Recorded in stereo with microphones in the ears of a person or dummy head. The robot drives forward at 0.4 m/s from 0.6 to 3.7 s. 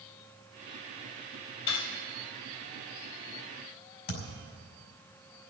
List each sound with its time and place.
1.7 s cutlery clinking: 60° left (ahead or behind), 4 m; by 2.0 s 65° left (ahead or behind), 4 m
4.1 s a thud: 80° left, 5.5 m